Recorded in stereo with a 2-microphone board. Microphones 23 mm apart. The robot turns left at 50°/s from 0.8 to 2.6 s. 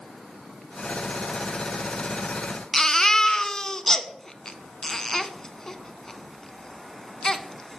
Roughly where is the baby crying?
Centre.